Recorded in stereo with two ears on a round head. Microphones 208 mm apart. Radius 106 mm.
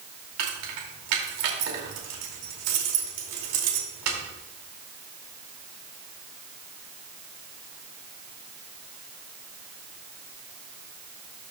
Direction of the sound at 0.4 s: 80° right.